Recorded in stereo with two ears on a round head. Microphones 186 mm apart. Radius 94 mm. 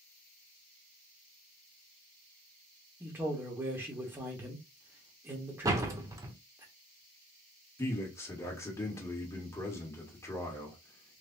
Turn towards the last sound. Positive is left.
turn(degrees=15)  # may be behind; listen again after turning